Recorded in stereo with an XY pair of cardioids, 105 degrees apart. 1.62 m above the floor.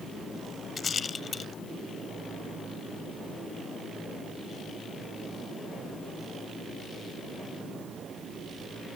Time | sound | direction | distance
0.8 | a rattle | 45° left | ?